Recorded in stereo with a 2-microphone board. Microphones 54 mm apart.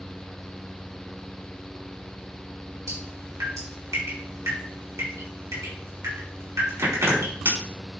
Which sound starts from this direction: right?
Dripping, at 2.9 s.